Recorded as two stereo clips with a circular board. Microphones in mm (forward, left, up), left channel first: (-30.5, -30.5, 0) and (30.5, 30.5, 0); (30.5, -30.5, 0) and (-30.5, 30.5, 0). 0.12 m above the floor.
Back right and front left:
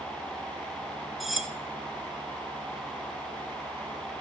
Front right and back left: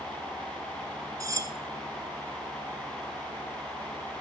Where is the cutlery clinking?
135° left, 1.1 m.